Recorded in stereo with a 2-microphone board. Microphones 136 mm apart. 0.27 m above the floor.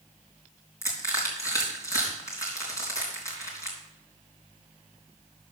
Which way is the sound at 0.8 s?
25° left (ahead or behind).